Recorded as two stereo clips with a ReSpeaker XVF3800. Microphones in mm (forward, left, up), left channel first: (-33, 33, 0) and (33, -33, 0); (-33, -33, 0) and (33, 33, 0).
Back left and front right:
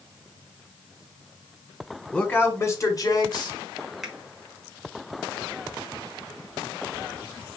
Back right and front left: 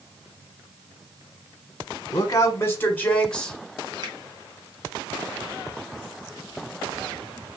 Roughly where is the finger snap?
Ahead left.